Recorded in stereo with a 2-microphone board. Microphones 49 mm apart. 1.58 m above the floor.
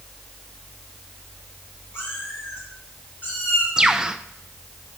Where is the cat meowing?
50° left (ahead or behind), 5.5 m; by 3.7 s 40° left (ahead or behind), 5 m.